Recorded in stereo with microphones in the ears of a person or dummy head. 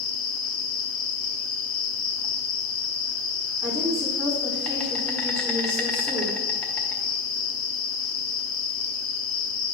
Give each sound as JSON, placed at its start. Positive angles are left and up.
{"t": 0.0, "sound": "an insect", "side_deg": 10, "distance_m": 1.0}
{"t": 3.6, "sound": "a woman speaking", "side_deg": -10, "distance_m": 2.5}